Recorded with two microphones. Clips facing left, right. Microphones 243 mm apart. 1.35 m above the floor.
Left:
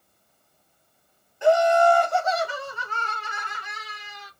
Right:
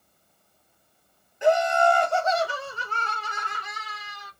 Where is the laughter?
20° right (ahead or behind), 2 m; by 4.3 s 45° right (ahead or behind), 3 m.